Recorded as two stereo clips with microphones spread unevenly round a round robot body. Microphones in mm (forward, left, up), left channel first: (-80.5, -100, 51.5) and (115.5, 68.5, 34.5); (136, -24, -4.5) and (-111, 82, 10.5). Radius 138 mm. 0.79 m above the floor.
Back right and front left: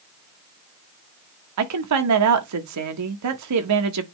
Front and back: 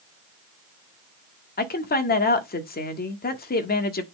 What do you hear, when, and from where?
1.6 s a woman speaking: 30° left, 1.5 m